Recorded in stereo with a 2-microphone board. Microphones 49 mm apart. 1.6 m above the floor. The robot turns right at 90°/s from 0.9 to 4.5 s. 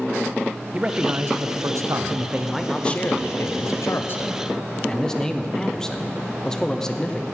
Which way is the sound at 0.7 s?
155° right.